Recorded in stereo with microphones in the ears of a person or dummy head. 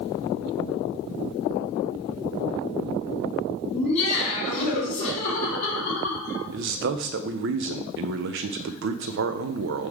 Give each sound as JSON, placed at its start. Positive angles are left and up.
{"t": 3.7, "sound": "laughter", "side_deg": 35, "distance_m": 3.5}
{"t": 6.5, "sound": "a man speaking", "side_deg": -60, "distance_m": 0.7}